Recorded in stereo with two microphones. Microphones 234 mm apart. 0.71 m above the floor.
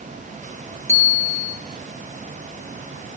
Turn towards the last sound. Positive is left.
turn(degrees=-60)  # may be behind; listen again after turning